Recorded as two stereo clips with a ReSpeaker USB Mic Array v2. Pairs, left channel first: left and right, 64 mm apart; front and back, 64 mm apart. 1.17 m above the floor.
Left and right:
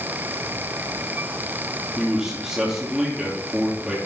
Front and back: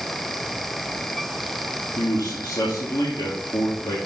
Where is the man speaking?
10° right, 2.5 m.